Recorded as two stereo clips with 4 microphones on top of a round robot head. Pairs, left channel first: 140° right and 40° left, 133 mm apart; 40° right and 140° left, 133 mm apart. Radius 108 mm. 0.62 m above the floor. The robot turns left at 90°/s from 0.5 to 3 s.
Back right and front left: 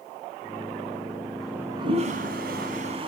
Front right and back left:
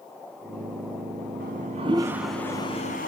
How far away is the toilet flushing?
About 0.9 m.